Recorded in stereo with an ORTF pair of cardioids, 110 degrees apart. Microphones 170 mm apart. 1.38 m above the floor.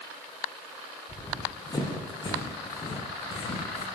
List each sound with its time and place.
1.1 s running footsteps: 20° left, 5.5 m; by 3.9 s 35° left, 6 m